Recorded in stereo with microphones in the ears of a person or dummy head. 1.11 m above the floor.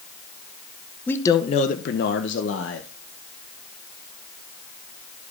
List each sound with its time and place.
1.1 s a man speaking: 10° left (ahead or behind), 0.5 m; by 2.9 s 65° left (ahead or behind), 0.9 m